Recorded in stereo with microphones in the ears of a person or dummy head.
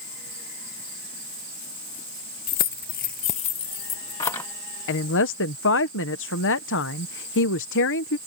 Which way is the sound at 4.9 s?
60° left (ahead or behind).